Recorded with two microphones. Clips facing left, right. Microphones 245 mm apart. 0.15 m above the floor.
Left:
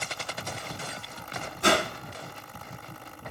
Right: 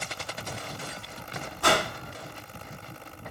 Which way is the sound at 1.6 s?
20° left (ahead or behind).